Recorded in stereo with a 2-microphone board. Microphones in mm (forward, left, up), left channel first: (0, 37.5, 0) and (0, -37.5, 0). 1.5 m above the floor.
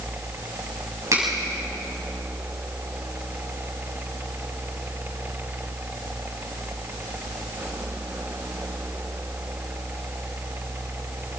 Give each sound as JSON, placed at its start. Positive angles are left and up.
{"t": 1.1, "sound": "a finger snap", "side_deg": -45, "distance_m": 7.5}